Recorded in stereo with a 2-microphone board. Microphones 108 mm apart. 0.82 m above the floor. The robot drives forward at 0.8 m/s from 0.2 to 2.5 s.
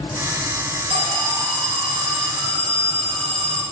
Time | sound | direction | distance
0.9 | an alarm | 65° right (ahead or behind) | 2.0 m